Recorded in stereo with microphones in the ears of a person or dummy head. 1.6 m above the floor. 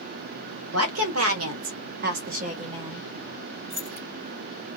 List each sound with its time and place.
0.7 s a woman speaking: 85° right, 1.1 m; by 3.1 s 15° right (ahead or behind), 0.8 m
3.7 s keys jangling: 35° right (ahead or behind), 1.5 m